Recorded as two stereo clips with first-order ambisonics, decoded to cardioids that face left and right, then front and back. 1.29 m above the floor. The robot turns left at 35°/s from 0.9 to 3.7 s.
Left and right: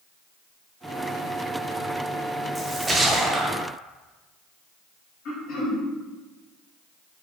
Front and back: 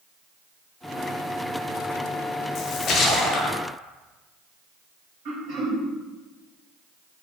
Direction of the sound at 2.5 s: 10° right.